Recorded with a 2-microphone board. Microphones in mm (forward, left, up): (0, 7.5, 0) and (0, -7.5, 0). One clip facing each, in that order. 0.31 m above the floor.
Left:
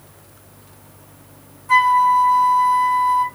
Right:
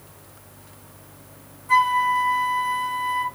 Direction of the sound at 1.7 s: 5° left (ahead or behind).